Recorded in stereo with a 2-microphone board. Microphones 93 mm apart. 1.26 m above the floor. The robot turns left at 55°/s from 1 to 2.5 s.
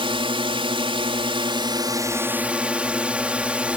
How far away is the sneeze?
No sneeze in this recording.